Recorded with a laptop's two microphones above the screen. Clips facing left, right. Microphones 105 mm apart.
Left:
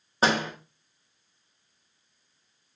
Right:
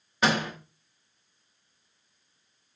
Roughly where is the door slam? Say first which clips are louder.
Left 1 dB; left.